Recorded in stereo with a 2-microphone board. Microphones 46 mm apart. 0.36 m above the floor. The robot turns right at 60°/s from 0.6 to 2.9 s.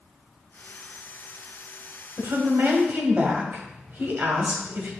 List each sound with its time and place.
2.2 s a woman speaking: 95° right, 2 m; by 4.9 s 55° right, 2 m